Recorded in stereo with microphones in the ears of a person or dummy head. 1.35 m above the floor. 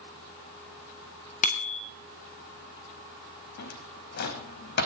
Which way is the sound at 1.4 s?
45° left (ahead or behind).